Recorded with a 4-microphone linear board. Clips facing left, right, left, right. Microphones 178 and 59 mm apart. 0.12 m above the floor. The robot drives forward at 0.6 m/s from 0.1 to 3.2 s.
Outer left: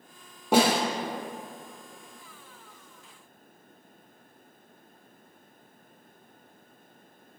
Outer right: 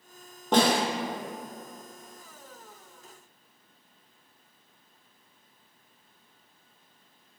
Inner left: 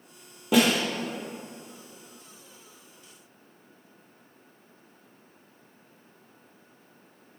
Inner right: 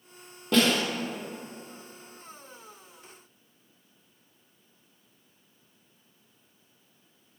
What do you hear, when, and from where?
0.5 s a snare drum: 10° left (ahead or behind), 4.5 m